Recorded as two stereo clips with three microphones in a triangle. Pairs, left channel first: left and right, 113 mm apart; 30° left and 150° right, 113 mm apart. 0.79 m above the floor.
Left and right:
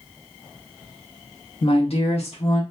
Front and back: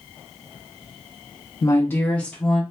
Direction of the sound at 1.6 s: 75° left.